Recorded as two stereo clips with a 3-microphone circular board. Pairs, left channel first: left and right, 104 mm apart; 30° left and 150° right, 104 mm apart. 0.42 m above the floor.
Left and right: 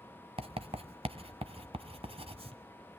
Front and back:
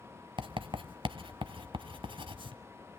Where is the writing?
115° right, 0.9 m.